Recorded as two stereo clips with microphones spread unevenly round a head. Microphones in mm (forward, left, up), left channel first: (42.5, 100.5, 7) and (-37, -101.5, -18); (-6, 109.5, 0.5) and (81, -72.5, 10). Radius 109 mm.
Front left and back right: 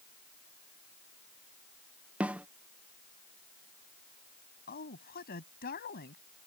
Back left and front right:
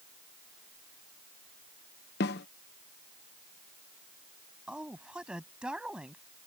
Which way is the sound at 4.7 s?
20° left.